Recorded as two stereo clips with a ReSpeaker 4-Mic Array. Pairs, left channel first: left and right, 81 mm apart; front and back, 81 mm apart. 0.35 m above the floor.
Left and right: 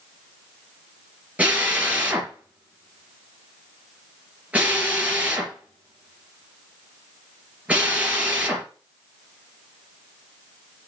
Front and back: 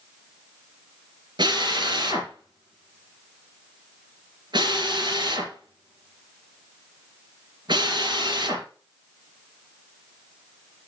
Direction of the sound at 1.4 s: 160° right.